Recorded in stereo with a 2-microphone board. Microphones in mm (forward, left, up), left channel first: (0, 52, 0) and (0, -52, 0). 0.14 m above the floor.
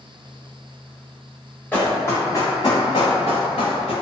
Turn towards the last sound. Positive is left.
turn(degrees=85)